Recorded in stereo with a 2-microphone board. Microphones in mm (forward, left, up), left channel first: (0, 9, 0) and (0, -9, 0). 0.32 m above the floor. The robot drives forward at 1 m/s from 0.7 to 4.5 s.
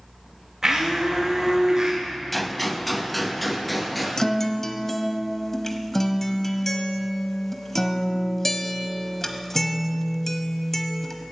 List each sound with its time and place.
0.6 s a blender: 25° right (ahead or behind), 5.5 m; by 2.0 s 30° right (ahead or behind), 4.5 m
2.3 s a gunshot: 5° left (ahead or behind), 0.6 m; by 4.1 s centre (ahead or behind), 2.5 m
4.2 s a guitar: 25° left (ahead or behind), 0.7 m; by 11.1 s 20° left (ahead or behind), 1.0 m